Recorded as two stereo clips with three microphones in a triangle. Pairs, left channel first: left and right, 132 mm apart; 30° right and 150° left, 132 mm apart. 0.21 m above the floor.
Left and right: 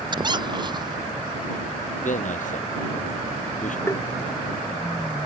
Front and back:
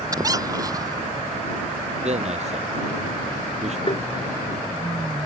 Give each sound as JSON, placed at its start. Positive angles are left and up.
{"t": 0.1, "sound": "a squeak", "azimuth_deg": -145}
{"t": 2.0, "sound": "a man speaking", "azimuth_deg": 115}
{"t": 3.9, "sound": "tapping", "azimuth_deg": 20}